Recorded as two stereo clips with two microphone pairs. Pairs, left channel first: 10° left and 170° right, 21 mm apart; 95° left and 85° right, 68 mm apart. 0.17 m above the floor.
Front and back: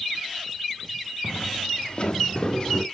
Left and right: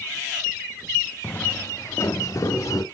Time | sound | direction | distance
1.2 | footsteps | 30° left | 0.6 m